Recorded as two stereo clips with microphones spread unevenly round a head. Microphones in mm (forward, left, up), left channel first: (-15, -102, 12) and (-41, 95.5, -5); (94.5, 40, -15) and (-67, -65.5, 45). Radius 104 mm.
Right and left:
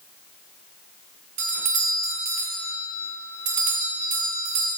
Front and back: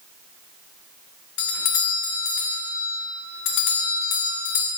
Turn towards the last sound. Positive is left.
turn(degrees=40)